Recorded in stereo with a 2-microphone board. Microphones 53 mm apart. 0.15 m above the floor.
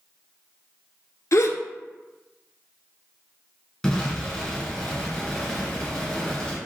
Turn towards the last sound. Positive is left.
turn(degrees=5)  # may be behind; listen again after turning